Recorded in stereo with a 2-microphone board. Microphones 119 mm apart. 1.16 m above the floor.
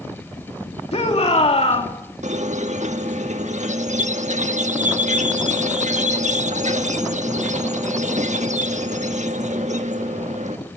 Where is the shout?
60° left (ahead or behind), 3 m.